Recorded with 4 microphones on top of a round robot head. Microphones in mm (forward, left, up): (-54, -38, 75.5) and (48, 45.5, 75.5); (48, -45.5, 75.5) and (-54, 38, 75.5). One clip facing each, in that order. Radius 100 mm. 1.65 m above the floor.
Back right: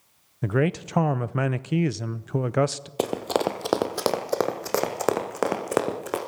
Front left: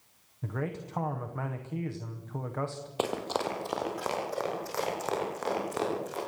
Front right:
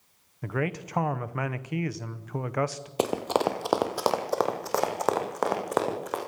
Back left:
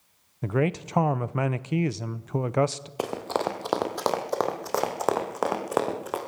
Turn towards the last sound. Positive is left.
turn(degrees=-135)